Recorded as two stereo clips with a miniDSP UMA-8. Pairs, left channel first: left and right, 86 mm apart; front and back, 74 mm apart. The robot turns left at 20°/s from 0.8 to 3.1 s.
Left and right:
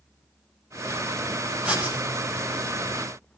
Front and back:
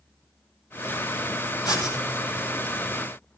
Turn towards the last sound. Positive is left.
turn(degrees=-45)